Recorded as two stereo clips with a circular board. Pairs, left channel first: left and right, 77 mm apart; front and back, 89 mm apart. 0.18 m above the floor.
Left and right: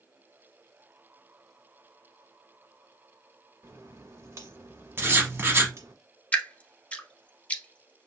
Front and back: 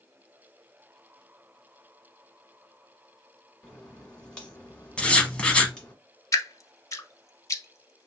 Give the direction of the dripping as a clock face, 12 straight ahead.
11 o'clock.